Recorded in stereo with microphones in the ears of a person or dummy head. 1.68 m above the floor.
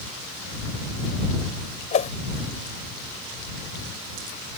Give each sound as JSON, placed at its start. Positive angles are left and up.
{"t": 1.9, "sound": "a whoosh", "side_deg": 35}